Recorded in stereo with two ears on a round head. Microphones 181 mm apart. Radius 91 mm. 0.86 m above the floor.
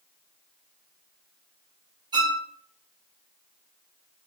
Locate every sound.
2.1 s a violin: 20° right (ahead or behind), 1.0 m